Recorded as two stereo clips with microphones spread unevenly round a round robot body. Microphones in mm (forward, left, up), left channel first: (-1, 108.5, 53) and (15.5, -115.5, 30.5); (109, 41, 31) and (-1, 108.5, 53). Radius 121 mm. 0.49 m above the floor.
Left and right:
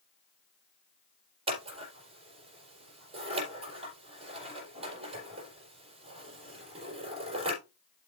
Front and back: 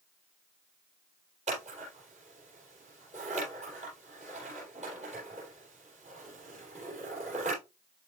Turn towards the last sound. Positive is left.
turn(degrees=-150)